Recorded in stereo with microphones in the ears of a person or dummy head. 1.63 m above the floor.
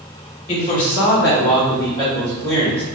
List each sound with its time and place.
0.5 s a man speaking: 35° left (ahead or behind), 1.2 m; by 2.8 s 5° left (ahead or behind), 2.5 m